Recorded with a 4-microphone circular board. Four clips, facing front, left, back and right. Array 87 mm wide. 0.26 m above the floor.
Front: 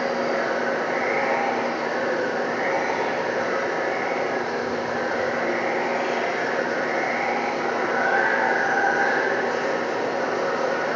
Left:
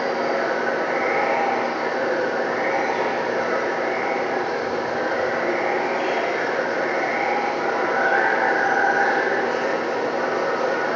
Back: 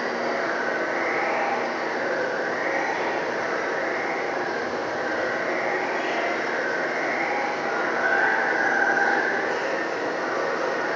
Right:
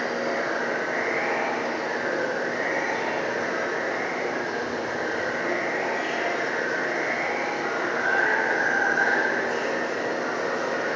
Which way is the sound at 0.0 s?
95° left.